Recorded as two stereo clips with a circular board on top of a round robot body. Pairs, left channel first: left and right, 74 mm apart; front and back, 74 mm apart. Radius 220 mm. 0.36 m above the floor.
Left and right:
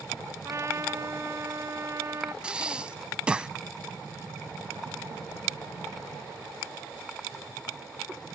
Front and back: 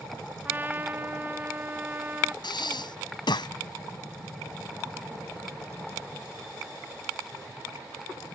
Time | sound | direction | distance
0.5 | a trumpet | 125° right | ?
2.4 | breathing | 15° right | ?